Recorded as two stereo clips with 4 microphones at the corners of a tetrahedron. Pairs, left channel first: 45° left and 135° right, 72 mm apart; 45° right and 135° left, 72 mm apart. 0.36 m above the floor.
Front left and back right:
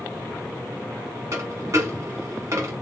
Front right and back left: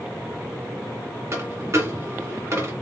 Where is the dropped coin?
Straight behind, 1.4 m.